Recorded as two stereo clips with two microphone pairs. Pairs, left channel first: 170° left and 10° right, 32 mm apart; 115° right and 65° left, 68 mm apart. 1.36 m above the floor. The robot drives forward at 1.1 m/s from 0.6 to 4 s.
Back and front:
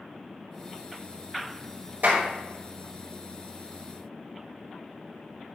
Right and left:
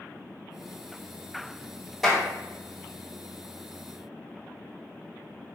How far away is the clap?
About 3.5 m.